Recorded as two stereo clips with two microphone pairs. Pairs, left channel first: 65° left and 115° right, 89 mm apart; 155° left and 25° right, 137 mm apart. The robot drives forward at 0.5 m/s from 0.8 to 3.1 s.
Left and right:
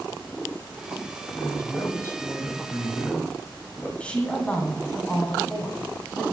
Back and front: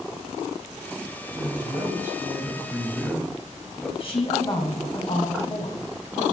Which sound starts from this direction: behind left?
A woman speaking, at 4.0 s.